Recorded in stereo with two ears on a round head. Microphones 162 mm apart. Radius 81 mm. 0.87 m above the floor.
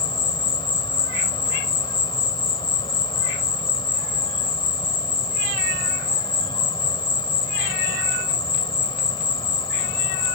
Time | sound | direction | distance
0.0 | an insect | 25° left (ahead or behind) | ?